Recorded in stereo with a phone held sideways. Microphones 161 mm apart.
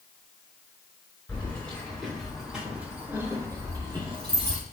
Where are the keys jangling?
15° left (ahead or behind), 3 m; by 4.6 s 40° right (ahead or behind), 2 m.